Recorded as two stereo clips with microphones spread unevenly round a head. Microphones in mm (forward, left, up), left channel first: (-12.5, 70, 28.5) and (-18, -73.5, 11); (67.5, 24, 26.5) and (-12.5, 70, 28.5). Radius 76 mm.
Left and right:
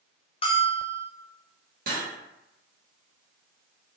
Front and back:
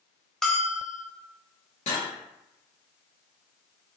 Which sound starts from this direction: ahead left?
A bell, at 0.4 s.